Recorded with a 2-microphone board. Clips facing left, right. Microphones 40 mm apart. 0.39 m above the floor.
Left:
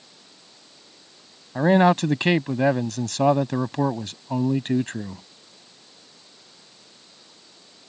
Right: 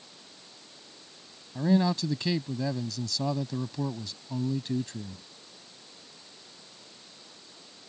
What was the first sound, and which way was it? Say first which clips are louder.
A man speaking: left 8 dB; 60° left (ahead or behind).